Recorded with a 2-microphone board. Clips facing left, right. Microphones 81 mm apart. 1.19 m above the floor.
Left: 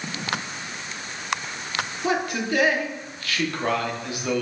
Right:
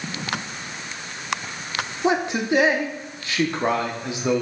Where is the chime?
I don't hear a chime.